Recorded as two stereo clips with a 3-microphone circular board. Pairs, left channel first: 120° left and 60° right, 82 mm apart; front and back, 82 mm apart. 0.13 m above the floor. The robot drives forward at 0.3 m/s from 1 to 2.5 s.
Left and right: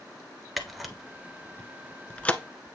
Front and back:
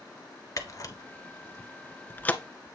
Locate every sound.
0.6 s a camera shutter: 30° left, 0.8 m; by 2.4 s 60° left, 0.6 m